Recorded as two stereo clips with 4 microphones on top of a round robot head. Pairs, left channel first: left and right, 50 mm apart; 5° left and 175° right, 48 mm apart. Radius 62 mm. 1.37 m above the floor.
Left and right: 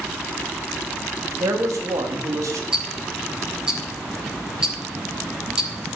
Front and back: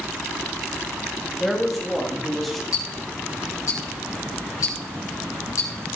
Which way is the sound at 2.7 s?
15° right.